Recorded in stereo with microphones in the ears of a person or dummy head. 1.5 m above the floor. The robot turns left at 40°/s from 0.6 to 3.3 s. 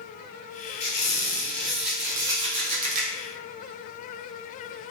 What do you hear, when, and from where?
0.8 s a squeak: 40° left, 0.6 m; by 3.1 s 55° right, 0.6 m